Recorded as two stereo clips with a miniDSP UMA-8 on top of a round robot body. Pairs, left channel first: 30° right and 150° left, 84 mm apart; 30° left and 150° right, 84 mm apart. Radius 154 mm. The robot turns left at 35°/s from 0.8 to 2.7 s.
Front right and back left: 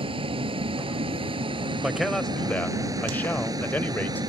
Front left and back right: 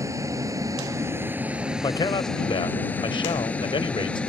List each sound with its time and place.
0.0 s a vehicle: 155° left; by 4.3 s 105° left
1.8 s a man speaking: 70° left; by 4.2 s 40° left